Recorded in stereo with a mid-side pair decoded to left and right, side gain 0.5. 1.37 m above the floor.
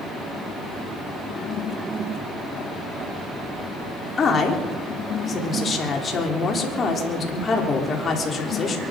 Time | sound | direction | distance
4.2 | a woman speaking | 40° left | 3.5 m